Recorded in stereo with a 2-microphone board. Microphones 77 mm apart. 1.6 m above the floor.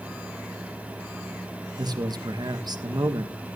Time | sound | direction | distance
1.8 | a man speaking | 60° right (ahead or behind) | 1.6 m